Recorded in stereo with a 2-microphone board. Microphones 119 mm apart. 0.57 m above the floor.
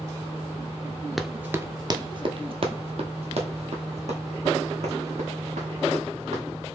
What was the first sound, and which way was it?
Running footsteps, centre (ahead or behind).